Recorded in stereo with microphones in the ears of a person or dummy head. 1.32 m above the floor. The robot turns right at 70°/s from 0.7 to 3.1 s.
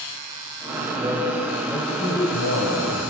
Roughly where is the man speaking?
Right.